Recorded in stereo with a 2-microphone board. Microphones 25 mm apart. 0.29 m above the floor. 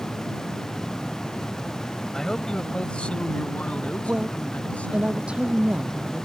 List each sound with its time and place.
2.1 s a man speaking: 20° left (ahead or behind); by 5.1 s 70° left (ahead or behind)
4.1 s a woman speaking: 55° right (ahead or behind)